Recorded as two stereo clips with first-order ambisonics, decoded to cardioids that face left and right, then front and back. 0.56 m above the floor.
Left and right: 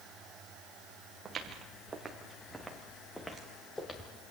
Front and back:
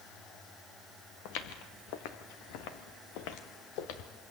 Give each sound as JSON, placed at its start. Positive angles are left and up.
{"t": 1.2, "sound": "footsteps", "azimuth_deg": -20, "distance_m": 3.0}